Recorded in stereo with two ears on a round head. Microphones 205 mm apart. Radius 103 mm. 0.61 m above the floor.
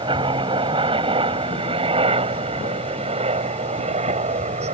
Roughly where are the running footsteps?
No running footsteps in this recording.